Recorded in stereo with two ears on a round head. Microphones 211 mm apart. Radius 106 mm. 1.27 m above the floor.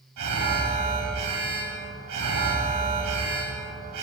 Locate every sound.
0.2 s an alarm: 80° right, 5.5 m